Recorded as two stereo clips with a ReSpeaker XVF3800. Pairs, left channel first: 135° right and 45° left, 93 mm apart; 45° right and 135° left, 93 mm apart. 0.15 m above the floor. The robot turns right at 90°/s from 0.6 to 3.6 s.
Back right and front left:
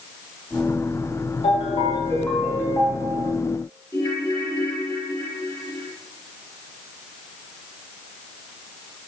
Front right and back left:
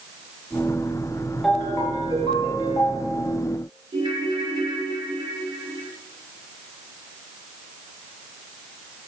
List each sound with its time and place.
1.4 s a ringtone: 135° right, 7.5 m; by 3.3 s 35° left, 7.5 m
3.9 s a ringtone: 160° left, 2.5 m